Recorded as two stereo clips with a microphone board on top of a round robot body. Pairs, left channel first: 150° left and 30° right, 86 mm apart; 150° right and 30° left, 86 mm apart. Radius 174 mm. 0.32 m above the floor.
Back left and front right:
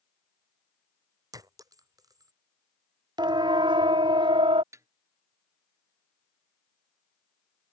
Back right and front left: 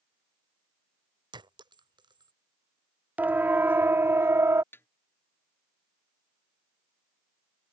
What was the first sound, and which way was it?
A clink, 10° left.